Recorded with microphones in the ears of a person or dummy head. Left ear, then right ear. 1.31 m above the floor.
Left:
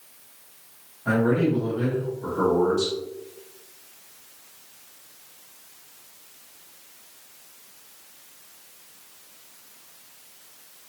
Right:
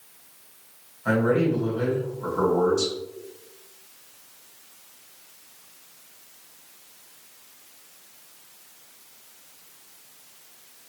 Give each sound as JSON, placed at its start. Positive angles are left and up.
{"t": 1.1, "sound": "a man speaking", "side_deg": -80, "distance_m": 1.5}